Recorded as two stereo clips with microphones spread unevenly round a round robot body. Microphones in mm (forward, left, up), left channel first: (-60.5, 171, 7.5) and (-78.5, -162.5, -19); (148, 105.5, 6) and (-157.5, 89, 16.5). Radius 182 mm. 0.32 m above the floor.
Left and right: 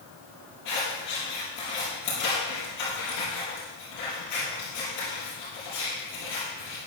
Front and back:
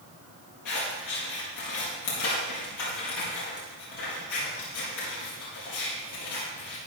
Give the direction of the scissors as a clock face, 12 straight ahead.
11 o'clock.